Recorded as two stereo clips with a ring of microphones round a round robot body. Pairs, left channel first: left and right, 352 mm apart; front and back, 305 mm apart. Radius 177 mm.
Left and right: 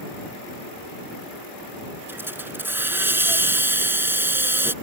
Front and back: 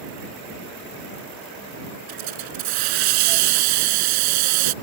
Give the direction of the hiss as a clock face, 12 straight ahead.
6 o'clock.